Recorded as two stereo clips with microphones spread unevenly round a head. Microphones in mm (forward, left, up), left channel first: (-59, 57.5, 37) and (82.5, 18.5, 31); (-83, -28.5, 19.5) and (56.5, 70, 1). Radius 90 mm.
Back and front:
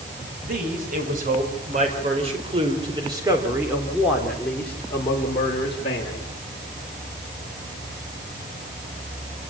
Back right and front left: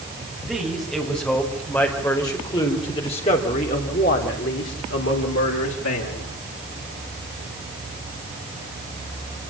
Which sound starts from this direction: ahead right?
A man speaking, at 0.5 s.